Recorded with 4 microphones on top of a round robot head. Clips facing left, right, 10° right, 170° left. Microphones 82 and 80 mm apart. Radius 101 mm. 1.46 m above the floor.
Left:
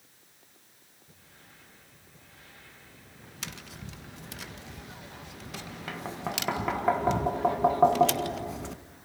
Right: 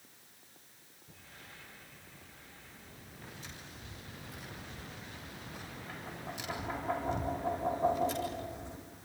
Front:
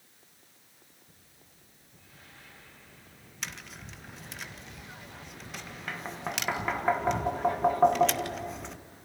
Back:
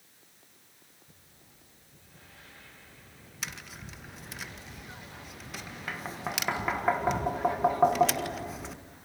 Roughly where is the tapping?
Left.